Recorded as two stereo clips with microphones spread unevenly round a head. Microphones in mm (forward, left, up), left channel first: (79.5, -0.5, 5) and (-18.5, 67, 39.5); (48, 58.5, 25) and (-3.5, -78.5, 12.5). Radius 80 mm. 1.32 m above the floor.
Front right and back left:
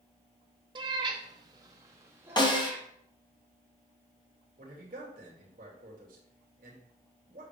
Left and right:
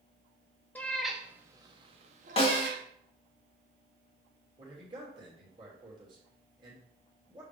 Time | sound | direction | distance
0.8 | a cat meowing | 140° left | 0.9 m
2.4 | a snare drum | 15° left | 2 m
4.6 | a man speaking | 170° right | 3 m